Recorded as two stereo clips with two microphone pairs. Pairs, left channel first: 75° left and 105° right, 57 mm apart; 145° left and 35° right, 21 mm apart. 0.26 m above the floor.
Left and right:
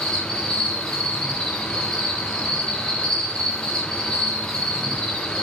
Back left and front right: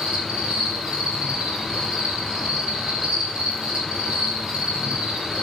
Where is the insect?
Straight ahead, 4 m.